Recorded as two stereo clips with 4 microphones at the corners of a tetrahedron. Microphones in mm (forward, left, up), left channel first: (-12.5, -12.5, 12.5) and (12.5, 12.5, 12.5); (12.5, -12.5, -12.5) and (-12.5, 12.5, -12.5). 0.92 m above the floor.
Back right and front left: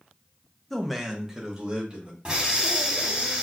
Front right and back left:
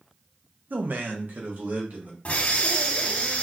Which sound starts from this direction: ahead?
Breathing, at 2.2 s.